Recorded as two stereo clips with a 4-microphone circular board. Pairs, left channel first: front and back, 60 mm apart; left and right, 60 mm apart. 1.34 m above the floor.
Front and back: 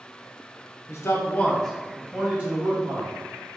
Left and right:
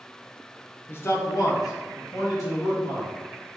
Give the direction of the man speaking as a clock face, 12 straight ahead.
11 o'clock.